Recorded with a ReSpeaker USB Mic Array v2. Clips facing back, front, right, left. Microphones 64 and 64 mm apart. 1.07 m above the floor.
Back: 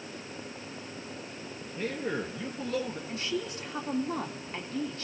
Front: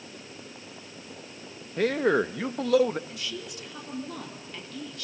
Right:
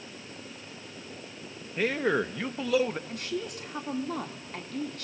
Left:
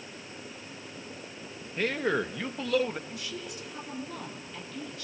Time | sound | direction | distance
1.8 | a man speaking | 5° right | 1.0 m
3.1 | a woman speaking | 125° right | 2.5 m